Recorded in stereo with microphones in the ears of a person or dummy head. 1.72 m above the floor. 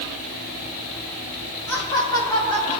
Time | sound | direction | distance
1.7 | laughter | 15° left (ahead or behind) | 2.5 m